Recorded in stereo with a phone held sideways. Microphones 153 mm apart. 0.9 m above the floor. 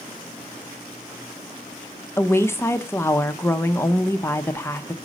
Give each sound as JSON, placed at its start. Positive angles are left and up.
{"t": 2.2, "sound": "a woman speaking", "side_deg": 15, "distance_m": 0.5}